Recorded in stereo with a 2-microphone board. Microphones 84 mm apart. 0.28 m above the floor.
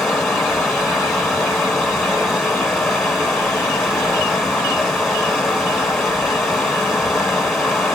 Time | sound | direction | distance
0.0 | running water | 5° left (ahead or behind) | 0.9 m